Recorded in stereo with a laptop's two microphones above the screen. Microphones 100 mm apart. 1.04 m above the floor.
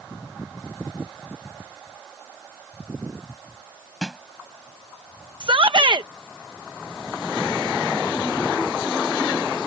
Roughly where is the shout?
Right.